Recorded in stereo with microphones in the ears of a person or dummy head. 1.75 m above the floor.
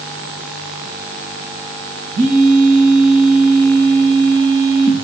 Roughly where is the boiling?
No boiling in this recording.